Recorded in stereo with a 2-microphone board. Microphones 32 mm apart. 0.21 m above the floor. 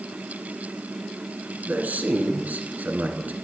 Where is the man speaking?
60° right (ahead or behind), 1.9 m.